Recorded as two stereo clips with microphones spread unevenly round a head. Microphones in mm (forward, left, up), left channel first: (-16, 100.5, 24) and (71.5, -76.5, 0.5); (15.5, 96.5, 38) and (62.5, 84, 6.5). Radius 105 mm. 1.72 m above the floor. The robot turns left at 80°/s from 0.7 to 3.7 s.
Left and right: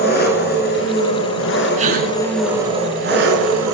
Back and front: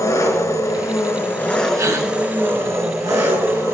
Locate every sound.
0.0 s an engine running: 165° left, 7 m; by 3.7 s 75° right, 7 m
1.8 s a gasp: 5° right, 5 m; by 2.1 s 30° right, 5 m